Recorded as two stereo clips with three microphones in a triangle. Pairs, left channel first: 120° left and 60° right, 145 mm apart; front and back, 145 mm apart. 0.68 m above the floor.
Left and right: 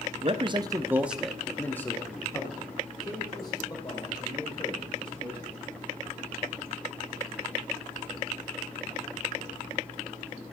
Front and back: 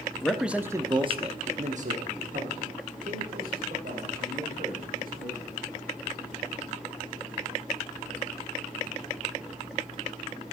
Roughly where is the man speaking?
Right.